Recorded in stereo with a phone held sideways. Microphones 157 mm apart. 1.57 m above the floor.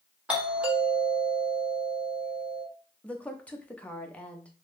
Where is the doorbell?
5° right (ahead or behind), 1.0 m.